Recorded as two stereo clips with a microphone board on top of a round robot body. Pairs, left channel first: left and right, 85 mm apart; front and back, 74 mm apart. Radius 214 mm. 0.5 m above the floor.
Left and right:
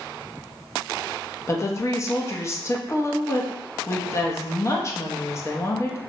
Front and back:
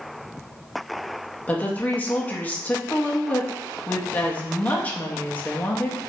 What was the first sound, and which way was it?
A woman speaking, 60° left.